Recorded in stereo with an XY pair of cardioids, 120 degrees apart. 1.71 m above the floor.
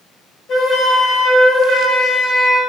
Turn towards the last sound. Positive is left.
turn(degrees=45)